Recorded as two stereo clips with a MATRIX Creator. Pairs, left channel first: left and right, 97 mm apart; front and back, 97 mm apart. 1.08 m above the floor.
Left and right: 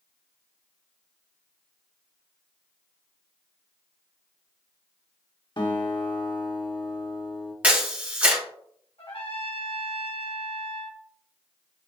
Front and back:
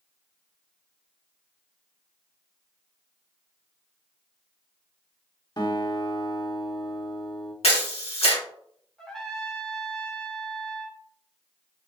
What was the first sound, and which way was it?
A guitar, 45° left.